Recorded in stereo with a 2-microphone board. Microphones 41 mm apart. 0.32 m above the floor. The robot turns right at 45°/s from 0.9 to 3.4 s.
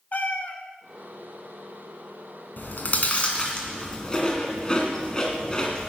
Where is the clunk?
No clunk in this recording.